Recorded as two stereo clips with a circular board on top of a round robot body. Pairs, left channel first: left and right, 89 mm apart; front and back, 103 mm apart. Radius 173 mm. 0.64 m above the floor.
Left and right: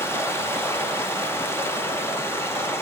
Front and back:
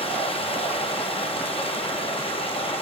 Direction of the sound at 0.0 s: 25° left.